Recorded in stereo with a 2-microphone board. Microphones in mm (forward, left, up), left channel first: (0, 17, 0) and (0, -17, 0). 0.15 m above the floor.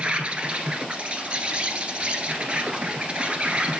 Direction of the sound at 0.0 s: 35° right (ahead or behind).